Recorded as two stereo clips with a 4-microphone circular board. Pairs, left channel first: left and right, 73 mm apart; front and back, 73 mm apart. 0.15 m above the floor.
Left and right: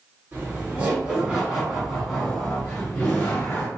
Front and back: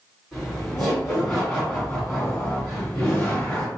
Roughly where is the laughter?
Right.